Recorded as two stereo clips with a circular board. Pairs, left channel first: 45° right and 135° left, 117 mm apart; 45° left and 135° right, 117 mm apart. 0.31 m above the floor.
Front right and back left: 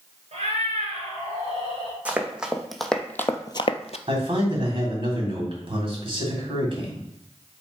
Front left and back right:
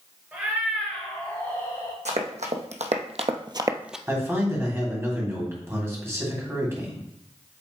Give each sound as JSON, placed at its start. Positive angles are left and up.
{"t": 0.3, "sound": "a cat meowing", "azimuth_deg": 150, "distance_m": 2.0}
{"t": 2.0, "sound": "running footsteps", "azimuth_deg": -145, "distance_m": 1.3}
{"t": 4.1, "sound": "a man speaking", "azimuth_deg": 160, "distance_m": 2.5}